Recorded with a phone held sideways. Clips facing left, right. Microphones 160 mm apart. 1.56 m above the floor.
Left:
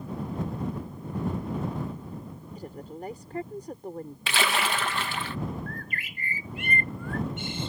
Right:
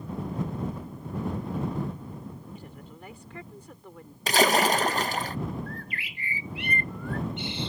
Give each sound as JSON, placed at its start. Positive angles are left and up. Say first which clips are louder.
{"t": 2.5, "sound": "a woman speaking", "louder": "left 6 dB", "side_deg": 40}
{"t": 4.3, "sound": "a splash", "louder": "right 7 dB", "side_deg": -40}
{"t": 5.7, "sound": "a bird", "louder": "even", "side_deg": 45}